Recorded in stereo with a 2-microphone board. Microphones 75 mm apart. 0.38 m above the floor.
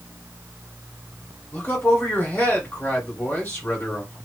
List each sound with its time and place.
1.5 s a man speaking: 30° left (ahead or behind), 1.6 m